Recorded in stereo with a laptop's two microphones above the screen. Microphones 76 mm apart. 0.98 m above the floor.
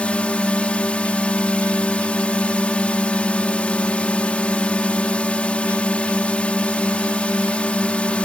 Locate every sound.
0.0 s a drone: 15° left (ahead or behind)